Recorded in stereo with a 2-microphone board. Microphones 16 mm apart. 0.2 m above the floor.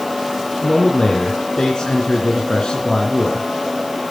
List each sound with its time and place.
0.6 s a man speaking: 55° left (ahead or behind), 3 m